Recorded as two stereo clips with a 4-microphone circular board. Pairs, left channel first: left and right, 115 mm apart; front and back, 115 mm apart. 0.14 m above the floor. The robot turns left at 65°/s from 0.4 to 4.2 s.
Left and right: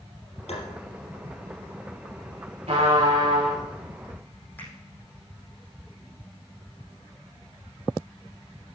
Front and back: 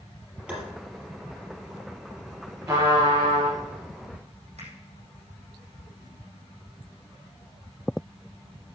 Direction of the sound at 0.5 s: 100° left.